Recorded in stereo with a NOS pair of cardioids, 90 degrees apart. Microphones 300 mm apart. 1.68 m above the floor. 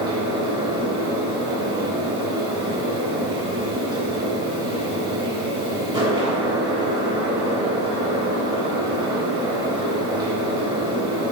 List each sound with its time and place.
0.0 s a fan: 15° right, 1.3 m